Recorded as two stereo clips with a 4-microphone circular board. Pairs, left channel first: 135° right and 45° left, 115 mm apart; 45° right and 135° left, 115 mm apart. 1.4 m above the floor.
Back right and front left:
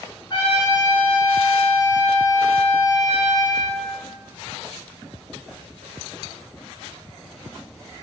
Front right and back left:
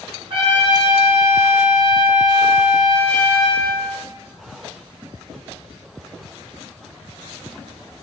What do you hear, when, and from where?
0.3 s a trumpet: 175° left, 1.2 m